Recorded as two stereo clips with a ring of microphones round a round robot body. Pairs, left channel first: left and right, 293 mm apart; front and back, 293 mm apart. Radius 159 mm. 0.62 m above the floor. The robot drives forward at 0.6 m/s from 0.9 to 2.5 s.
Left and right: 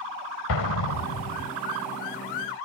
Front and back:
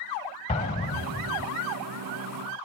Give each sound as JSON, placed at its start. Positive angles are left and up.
{"t": 0.5, "sound": "an explosion", "azimuth_deg": 70, "distance_m": 1.2}